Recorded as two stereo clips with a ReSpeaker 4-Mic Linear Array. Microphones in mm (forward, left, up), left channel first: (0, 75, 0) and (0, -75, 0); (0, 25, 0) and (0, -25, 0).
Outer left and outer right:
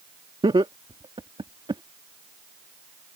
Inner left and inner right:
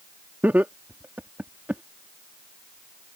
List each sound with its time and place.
0.4 s laughter: 40° right (ahead or behind)